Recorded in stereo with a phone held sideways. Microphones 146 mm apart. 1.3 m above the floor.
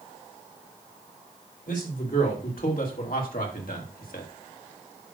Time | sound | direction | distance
1.7 | a man speaking | 70° left (ahead or behind) | 3.5 m